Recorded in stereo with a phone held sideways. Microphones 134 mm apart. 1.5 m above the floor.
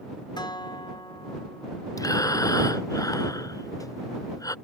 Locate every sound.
0.4 s a guitar: 35° left (ahead or behind)
2.0 s breathing: 25° left (ahead or behind)